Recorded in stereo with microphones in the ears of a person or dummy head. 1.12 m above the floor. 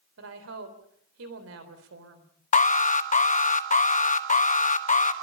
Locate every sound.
0.2 s a woman speaking: 85° right, 3.5 m
2.5 s an alarm: 40° left (ahead or behind), 1.0 m